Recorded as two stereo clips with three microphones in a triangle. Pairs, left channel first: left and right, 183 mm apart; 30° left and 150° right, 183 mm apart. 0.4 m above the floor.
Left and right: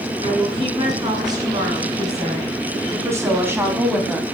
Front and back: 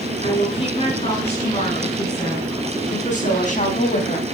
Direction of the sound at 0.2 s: 25° right.